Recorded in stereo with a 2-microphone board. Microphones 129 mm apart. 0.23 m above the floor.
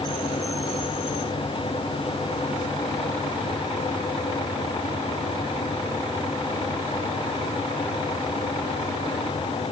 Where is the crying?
No crying in this recording.